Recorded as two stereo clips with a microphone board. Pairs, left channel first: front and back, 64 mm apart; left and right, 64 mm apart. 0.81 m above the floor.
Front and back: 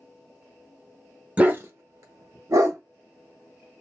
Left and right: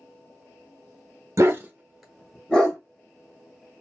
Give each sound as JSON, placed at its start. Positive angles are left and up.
{"t": 1.4, "sound": "a dog barking", "azimuth_deg": -115, "distance_m": 0.6}